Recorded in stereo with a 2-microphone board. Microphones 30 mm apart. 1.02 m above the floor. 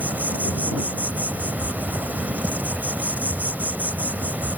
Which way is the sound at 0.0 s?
80° right.